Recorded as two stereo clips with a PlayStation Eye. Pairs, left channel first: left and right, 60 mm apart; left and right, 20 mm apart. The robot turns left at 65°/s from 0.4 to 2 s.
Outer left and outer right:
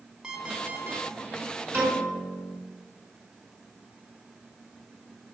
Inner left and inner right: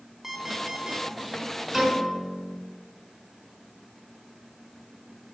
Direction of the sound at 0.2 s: 15° right.